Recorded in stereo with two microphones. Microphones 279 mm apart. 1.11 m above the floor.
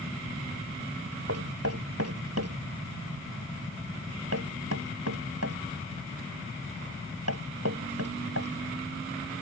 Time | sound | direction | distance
1.3 | knocking | 60° right (ahead or behind) | ?